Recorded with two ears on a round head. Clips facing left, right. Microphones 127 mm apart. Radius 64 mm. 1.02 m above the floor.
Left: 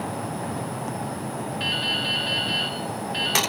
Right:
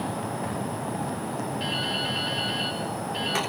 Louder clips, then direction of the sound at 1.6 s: Even; 70° left (ahead or behind).